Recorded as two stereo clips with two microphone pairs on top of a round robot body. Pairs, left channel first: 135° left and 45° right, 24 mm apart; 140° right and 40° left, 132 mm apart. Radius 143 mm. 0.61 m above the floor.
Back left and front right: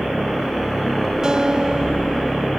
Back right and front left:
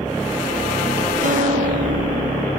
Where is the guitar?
15° left.